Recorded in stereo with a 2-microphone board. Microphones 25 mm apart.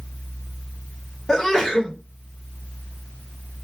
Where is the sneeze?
20° left (ahead or behind), 1.0 m.